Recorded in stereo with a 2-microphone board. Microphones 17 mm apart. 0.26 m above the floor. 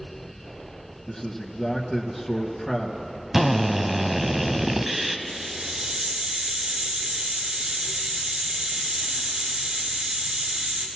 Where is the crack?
I don't hear a crack.